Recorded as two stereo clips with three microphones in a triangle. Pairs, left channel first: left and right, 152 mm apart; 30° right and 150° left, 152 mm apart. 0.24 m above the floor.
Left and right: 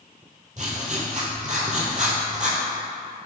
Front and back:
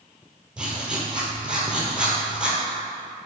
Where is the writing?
125° right, 1.0 m.